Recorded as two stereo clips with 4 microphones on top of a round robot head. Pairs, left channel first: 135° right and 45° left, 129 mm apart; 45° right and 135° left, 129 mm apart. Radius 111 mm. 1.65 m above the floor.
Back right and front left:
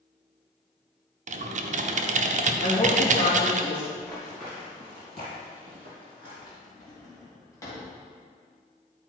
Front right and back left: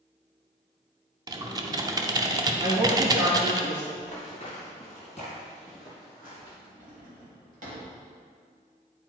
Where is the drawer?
160° left, 2 m.